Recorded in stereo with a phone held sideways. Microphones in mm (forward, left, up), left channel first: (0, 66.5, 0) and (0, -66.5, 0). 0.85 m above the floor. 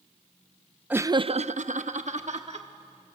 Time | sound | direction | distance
0.9 | laughter | 10° right (ahead or behind) | 0.5 m